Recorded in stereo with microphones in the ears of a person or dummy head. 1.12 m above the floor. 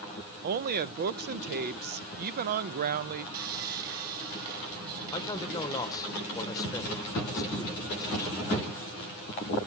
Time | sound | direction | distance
0.4 | a woman speaking | 40° right (ahead or behind) | 0.6 m
3.3 | sawing | 50° right (ahead or behind) | 3.5 m
5.1 | a man speaking | 15° left (ahead or behind) | 0.8 m